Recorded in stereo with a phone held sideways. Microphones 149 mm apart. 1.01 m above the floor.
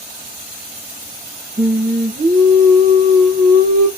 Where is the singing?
65° right (ahead or behind), 0.8 m.